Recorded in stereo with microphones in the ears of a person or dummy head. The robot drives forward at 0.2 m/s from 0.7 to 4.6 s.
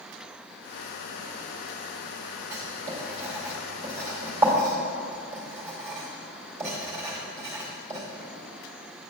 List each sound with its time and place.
2.5 s writing: 20° right (ahead or behind), 2 m; by 8.0 s 15° right (ahead or behind), 2.5 m